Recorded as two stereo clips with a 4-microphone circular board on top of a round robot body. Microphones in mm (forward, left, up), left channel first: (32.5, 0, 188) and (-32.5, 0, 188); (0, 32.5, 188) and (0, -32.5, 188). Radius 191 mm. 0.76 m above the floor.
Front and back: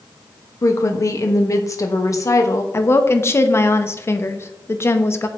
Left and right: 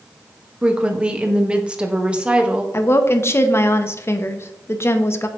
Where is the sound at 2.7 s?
45° left, 1.2 m.